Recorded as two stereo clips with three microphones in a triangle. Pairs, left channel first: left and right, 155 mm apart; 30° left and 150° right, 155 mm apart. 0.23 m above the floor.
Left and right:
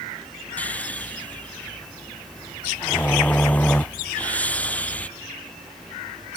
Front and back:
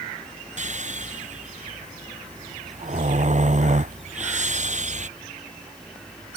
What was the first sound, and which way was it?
Snoring, 170° left.